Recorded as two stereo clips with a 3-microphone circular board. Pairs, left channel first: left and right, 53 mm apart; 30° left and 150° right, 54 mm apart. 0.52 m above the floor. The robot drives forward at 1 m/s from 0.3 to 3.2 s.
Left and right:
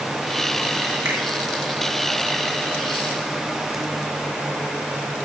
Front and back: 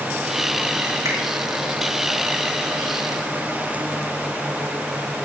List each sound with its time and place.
1.1 s a finger snap: 125° right, 5.5 m